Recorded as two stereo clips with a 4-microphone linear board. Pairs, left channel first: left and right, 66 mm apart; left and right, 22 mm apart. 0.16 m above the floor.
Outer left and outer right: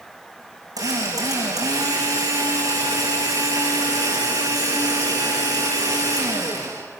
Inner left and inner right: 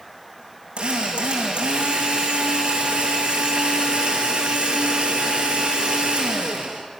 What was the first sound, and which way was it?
A drill, 70° right (ahead or behind).